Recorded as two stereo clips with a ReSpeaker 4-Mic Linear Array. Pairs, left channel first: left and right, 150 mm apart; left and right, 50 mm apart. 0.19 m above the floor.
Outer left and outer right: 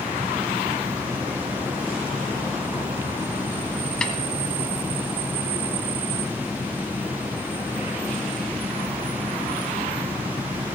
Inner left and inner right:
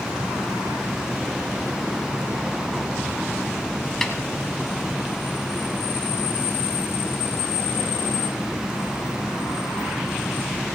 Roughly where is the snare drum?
Centre.